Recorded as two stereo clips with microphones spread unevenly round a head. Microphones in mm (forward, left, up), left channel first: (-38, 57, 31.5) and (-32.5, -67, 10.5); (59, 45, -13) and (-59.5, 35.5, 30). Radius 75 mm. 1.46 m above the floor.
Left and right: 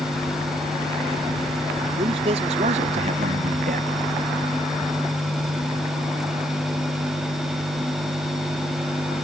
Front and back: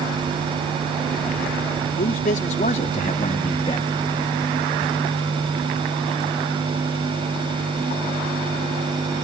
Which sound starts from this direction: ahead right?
A man speaking, at 2.0 s.